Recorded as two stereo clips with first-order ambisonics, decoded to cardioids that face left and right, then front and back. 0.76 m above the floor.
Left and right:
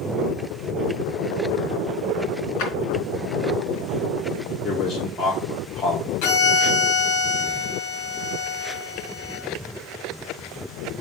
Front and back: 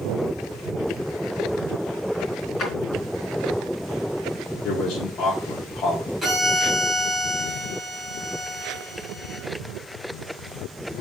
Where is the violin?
95° left, 3.5 m.